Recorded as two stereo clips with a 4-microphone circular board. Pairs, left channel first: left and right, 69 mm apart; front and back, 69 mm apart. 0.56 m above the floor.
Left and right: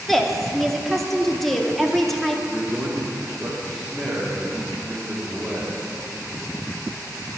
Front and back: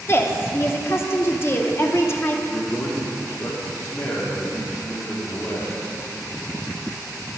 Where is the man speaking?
Straight ahead, 1.2 m.